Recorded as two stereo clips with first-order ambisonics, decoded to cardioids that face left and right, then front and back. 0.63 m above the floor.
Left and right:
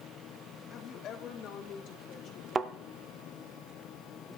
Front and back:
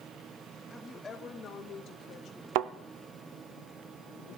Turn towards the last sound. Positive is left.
turn(degrees=-160)